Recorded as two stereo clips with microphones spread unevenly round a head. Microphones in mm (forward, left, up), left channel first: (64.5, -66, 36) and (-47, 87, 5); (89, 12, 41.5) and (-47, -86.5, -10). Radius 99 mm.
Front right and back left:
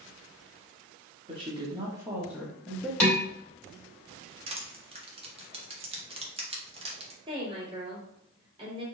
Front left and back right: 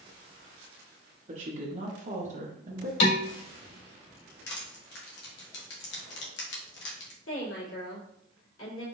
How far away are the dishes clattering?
About 2 m.